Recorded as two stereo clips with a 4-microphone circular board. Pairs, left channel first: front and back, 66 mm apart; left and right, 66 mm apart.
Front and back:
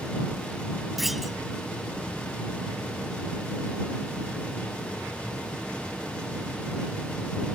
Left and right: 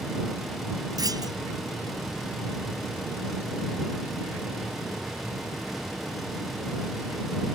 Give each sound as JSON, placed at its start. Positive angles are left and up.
{"t": 1.0, "sound": "a clunk", "azimuth_deg": -95}